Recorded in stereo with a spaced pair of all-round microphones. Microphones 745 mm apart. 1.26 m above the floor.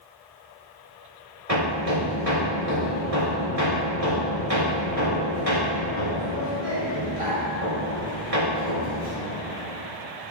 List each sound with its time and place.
1.5 s hammering: 50° right (ahead or behind), 2.5 m